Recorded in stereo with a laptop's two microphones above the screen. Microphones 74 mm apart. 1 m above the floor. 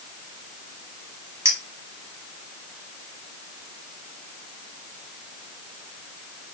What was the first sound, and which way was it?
A clink, 45° right (ahead or behind).